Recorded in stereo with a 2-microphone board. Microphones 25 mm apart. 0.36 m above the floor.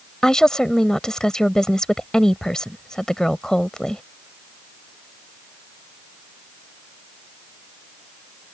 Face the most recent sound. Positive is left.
turn(degrees=25)  # may be behind; listen again after turning